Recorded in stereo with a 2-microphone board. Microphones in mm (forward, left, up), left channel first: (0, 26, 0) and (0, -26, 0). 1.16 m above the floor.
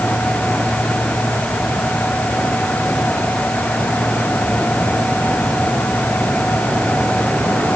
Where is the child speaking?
No child speaking in this recording.